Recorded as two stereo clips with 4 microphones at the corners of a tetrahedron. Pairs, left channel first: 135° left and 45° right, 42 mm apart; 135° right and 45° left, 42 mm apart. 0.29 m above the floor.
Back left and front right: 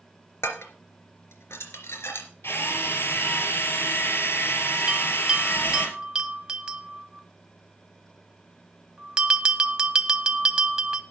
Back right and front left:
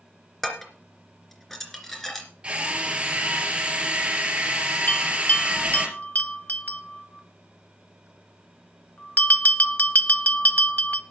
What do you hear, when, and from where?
0.4 s dishes clattering: 140° left, 3 m
2.4 s a drill: 110° left, 3 m
4.9 s a bell: 110° right, 1.3 m